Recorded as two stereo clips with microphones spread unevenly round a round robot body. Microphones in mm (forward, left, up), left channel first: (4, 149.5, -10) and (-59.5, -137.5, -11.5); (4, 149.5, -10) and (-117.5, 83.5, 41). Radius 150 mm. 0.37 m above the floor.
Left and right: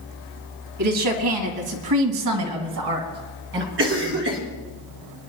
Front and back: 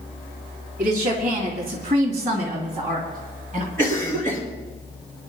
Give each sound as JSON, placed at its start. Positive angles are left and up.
{"t": 0.8, "sound": "a woman speaking", "azimuth_deg": -90, "distance_m": 2.5}
{"t": 3.8, "sound": "a cough", "azimuth_deg": -50, "distance_m": 4.0}